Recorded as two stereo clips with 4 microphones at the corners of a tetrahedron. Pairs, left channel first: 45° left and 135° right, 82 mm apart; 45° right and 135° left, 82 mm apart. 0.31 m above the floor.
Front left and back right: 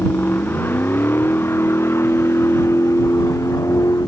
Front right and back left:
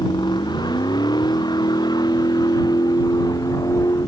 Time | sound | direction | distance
0.0 | a vehicle | 20° right | ?